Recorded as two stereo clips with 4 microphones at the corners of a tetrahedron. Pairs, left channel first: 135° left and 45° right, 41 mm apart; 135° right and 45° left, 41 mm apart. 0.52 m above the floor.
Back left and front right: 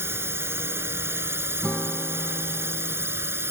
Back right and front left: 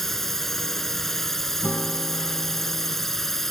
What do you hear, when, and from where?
0.0 s a drone: 50° right
1.6 s a guitar: 170° right